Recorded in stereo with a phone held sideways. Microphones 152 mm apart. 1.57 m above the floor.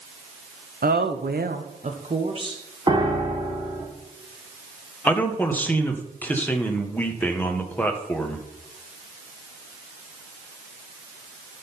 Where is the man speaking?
10° left (ahead or behind), 1.4 m.